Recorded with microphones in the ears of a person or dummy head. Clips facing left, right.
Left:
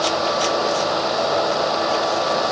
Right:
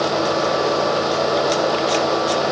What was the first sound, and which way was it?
Only background noise.